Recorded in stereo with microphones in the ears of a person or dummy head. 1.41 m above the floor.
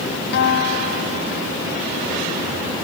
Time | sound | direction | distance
0.3 | a guitar | 65° left (ahead or behind) | ?